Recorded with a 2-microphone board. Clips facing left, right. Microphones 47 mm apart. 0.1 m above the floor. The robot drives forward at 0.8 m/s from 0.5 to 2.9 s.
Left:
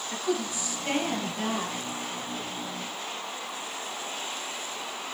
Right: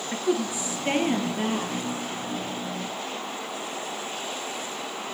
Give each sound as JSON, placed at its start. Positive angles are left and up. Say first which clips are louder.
{"t": 0.1, "sound": "a woman speaking", "louder": "right 4 dB", "side_deg": -20, "distance_m": 1.9}